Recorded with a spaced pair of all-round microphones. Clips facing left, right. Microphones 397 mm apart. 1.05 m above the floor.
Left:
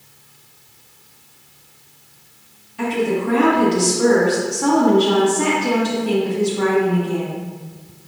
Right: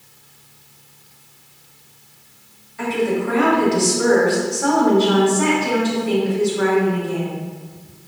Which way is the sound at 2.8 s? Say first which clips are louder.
Even; 45° left (ahead or behind).